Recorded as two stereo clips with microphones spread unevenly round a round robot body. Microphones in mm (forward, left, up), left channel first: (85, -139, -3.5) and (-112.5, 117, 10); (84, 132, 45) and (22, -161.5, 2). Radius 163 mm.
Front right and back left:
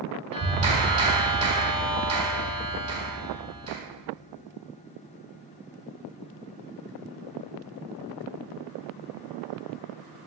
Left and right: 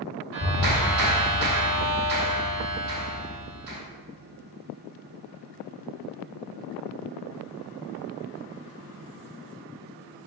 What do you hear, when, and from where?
0.3 s a clap: 165° right, 3.5 m